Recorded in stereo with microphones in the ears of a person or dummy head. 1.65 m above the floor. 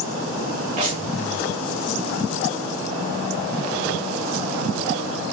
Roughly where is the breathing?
Right.